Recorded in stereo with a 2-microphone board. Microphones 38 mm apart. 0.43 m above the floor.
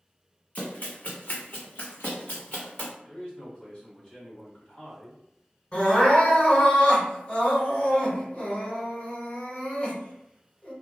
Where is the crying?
35° left (ahead or behind), 1.8 m.